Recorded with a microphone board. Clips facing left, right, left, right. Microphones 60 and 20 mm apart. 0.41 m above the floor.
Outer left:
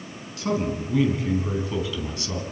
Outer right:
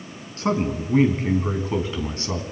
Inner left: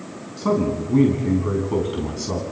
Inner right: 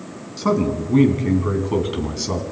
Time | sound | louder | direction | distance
0.4 | a man speaking | outer right 2 dB, inner right 1 dB | 40° right (ahead or behind) | 5 m